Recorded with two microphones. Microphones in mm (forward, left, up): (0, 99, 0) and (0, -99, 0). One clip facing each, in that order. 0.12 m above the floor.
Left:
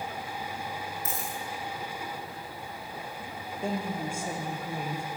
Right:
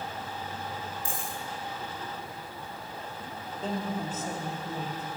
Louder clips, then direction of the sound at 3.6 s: Left 1 dB; 10° left (ahead or behind).